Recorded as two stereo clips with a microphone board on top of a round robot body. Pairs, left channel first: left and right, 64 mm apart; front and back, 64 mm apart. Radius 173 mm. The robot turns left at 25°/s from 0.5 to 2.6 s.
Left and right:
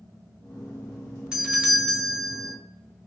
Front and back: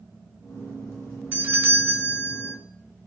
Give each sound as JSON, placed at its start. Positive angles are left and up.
{"t": 1.3, "sound": "a doorbell", "azimuth_deg": -155, "distance_m": 1.4}